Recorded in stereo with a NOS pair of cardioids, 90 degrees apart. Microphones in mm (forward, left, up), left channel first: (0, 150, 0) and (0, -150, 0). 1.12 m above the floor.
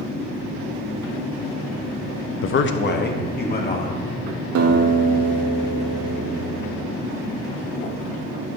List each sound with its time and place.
2.4 s a man speaking: 50° left, 0.7 m; by 4.0 s 30° left, 3 m
4.5 s a guitar: 65° right, 1.4 m